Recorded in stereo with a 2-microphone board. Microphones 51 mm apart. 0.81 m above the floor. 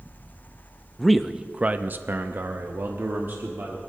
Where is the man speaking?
5° left (ahead or behind), 0.7 m; by 3.8 s 45° right (ahead or behind), 1.7 m.